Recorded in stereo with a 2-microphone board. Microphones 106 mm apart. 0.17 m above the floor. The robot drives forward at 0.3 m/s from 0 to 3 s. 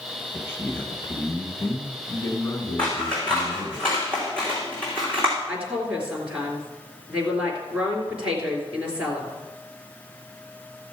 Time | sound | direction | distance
0.3 | a man speaking | 25° left (ahead or behind) | 1.4 m
2.8 | scissors | 10° left (ahead or behind) | 3.5 m
5.5 | a woman speaking | 10° right (ahead or behind) | 3 m